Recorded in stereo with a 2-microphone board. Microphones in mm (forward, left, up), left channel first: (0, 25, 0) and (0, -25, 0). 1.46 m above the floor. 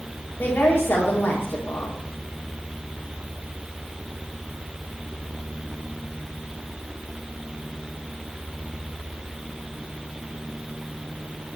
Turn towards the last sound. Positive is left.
turn(degrees=45)  # may be behind; listen again after turning